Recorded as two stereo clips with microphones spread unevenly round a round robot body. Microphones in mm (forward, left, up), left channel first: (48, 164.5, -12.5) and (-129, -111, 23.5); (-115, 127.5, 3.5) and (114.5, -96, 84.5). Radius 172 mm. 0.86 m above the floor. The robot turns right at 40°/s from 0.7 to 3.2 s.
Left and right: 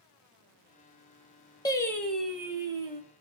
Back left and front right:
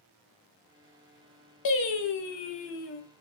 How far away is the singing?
About 0.7 m.